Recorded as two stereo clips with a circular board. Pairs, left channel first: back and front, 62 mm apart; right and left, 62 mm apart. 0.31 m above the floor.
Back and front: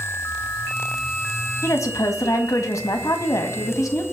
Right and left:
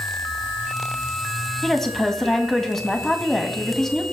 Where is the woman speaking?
175° right, 1.7 m.